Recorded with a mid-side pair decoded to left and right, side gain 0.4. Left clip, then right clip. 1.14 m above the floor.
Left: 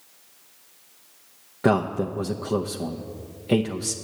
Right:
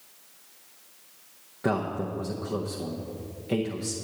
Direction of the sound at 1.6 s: 50° left.